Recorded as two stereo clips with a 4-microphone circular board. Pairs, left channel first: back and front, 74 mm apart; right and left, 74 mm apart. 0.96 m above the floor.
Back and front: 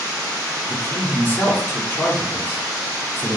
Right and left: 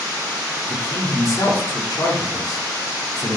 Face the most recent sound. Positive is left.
turn(degrees=-125)